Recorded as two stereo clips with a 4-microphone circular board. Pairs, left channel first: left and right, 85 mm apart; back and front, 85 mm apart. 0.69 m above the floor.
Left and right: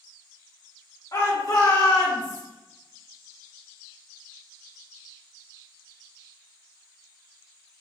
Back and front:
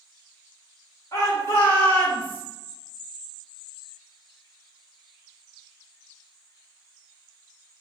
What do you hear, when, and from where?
1.1 s a shout: 130° left, 2.5 m; by 2.4 s 105° left, 2 m